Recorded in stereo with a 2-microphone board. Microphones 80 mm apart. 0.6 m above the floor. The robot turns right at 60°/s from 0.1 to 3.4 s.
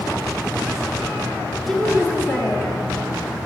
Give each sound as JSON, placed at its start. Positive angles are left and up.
{"t": 1.7, "sound": "a woman speaking", "azimuth_deg": 0, "distance_m": 0.9}